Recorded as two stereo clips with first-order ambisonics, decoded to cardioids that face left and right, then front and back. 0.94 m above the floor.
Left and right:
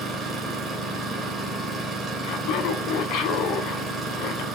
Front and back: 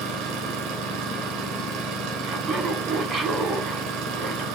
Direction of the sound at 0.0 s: 160° right.